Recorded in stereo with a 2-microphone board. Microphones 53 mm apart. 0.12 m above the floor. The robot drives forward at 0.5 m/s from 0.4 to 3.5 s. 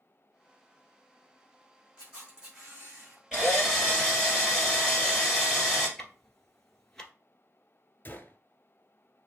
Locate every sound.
2.0 s a camera shutter: 15° right (ahead or behind), 3.5 m; by 3.2 s 10° right (ahead or behind), 4.5 m
3.3 s a drill: 10° right (ahead or behind), 3 m
6.0 s ticking: 10° left (ahead or behind), 1.1 m
8.1 s a gunshot: 40° left (ahead or behind), 0.7 m